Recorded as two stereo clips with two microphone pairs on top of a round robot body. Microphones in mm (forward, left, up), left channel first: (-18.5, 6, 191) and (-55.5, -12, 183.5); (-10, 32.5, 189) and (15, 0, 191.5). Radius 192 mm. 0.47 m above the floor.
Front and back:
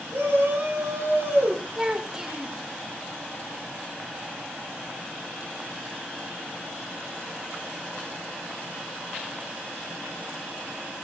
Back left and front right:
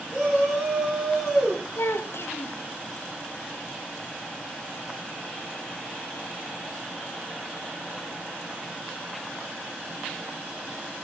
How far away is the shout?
About 10 m.